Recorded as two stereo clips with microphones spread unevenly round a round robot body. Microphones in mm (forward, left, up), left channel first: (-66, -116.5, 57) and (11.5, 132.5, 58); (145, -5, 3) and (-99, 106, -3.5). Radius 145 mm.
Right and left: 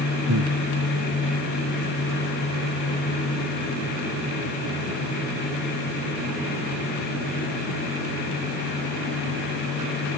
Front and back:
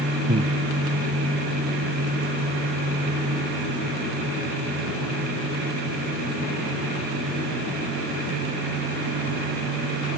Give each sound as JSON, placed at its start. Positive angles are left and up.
{"t": 0.3, "sound": "breathing", "azimuth_deg": 95}